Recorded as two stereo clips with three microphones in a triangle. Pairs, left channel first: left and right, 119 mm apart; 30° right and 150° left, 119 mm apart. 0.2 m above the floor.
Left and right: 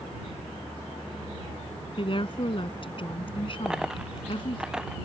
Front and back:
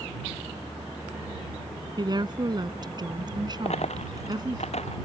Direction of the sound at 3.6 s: 5° right.